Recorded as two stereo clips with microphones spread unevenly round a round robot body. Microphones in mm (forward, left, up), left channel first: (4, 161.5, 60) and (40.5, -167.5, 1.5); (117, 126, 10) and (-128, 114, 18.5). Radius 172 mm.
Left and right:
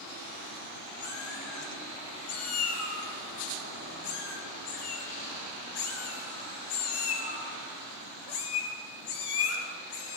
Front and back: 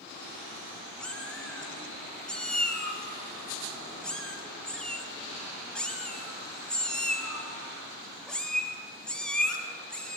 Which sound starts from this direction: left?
A cat meowing, at 1.0 s.